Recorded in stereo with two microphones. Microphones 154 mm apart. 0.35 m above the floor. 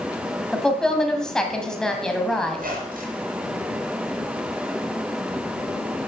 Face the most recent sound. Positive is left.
turn(degrees=-70)  # may be behind; listen again after turning